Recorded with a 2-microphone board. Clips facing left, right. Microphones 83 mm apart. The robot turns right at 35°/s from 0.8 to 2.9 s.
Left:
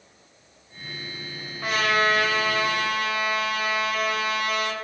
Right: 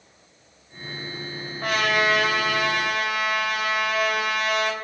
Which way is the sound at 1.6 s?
130° right.